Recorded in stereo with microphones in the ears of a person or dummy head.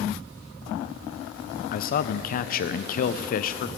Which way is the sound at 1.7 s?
40° left (ahead or behind).